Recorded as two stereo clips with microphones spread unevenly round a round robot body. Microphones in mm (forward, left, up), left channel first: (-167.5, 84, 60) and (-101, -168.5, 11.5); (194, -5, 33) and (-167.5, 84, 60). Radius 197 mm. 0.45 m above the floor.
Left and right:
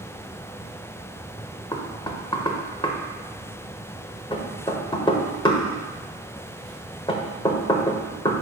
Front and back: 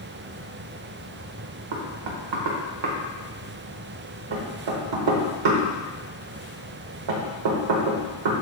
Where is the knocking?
Straight behind, 1.2 m.